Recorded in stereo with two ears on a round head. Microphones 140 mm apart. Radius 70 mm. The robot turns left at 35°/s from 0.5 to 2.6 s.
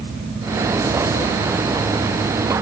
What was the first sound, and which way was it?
Only background noise.